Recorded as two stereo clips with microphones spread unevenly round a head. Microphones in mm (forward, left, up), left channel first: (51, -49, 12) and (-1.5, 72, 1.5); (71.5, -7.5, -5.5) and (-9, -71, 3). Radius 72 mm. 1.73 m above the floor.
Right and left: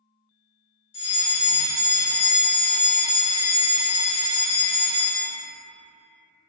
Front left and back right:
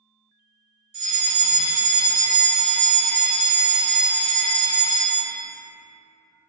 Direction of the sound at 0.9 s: 125° right.